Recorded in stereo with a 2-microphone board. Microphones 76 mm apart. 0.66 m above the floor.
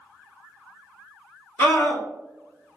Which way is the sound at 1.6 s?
30° left (ahead or behind).